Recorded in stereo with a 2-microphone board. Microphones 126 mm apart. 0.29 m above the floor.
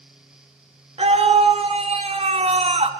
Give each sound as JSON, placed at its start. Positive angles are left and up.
{"t": 1.0, "sound": "a scream", "side_deg": -55, "distance_m": 4.0}